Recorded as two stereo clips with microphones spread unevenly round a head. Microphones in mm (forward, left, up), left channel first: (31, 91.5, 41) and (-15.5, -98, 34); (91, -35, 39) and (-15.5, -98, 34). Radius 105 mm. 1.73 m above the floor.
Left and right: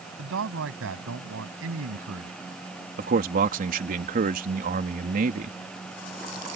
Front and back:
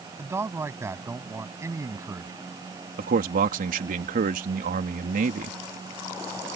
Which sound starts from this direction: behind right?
A man speaking, at 3.0 s.